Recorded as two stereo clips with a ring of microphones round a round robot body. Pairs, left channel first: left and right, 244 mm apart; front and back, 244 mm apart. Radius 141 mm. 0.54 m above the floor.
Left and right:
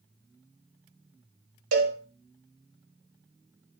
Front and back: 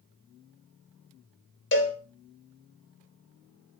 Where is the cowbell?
45° right, 1.0 m.